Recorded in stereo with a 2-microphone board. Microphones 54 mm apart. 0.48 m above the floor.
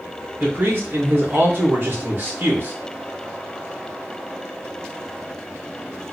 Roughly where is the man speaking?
Right.